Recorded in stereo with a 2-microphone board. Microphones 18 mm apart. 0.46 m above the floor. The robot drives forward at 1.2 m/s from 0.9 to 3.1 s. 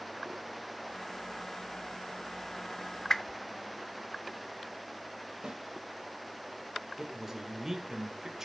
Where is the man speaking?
25° right (ahead or behind), 1.7 m.